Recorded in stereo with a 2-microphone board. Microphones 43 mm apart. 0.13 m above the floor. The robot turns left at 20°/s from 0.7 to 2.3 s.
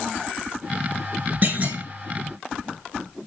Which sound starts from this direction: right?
A clunk, at 1.4 s.